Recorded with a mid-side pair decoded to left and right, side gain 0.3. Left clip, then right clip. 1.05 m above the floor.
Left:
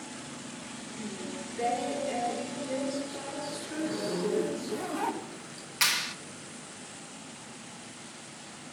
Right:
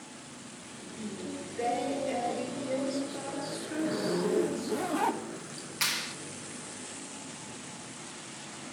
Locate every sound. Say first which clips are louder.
1.0 s singing: right 1 dB; 10° right, 3.5 m
3.7 s a zipper: right 2 dB; 40° right, 0.8 m
5.8 s a clap: left 4 dB; 40° left, 1.0 m